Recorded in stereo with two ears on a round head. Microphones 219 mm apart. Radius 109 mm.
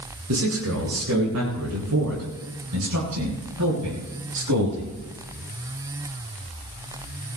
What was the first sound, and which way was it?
A man speaking, 60° right (ahead or behind).